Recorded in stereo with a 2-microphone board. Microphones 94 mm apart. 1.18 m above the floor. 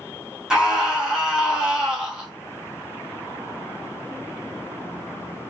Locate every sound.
0.5 s a scream: 10° right (ahead or behind), 2 m